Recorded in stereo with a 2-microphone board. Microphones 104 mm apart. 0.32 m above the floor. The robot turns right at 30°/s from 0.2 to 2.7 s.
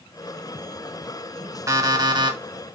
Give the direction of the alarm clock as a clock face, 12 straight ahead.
5 o'clock.